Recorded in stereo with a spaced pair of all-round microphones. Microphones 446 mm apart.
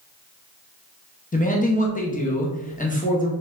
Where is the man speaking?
20° left (ahead or behind), 0.6 m.